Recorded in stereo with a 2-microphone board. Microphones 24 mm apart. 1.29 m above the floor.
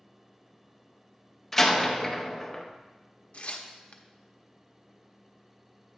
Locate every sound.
1.5 s a door slam: 10° left (ahead or behind), 0.7 m
3.3 s tearing paper: 60° left (ahead or behind), 0.6 m